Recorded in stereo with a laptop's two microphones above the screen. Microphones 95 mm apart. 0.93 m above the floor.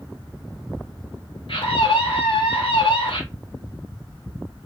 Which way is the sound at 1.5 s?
65° left (ahead or behind).